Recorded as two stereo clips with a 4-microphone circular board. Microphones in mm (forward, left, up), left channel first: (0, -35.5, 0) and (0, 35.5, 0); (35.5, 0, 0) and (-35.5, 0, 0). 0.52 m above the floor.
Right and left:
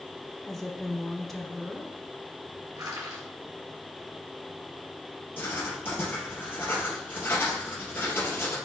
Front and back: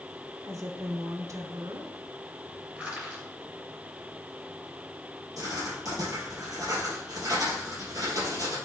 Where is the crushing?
105° left, 4 m.